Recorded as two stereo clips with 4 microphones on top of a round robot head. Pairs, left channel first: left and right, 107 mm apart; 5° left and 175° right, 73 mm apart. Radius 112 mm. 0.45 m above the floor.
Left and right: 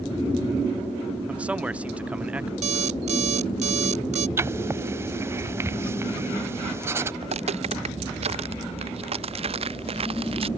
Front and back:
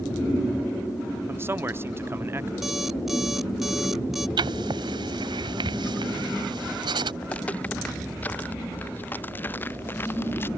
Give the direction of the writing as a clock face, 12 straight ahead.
5 o'clock.